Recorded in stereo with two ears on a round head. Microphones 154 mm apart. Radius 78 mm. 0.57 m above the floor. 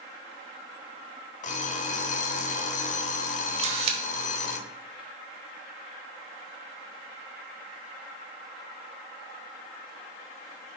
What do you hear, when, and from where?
1.4 s an alarm clock: 45° left (ahead or behind), 0.9 m
3.6 s a camera shutter: 35° right (ahead or behind), 1.3 m